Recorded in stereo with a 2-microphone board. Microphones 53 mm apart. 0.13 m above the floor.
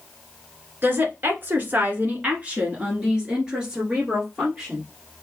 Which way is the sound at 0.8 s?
40° right (ahead or behind).